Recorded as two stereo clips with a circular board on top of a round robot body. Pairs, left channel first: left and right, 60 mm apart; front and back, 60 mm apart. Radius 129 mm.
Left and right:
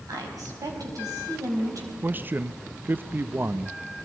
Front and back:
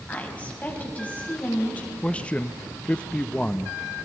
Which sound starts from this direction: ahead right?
A man speaking, at 2.0 s.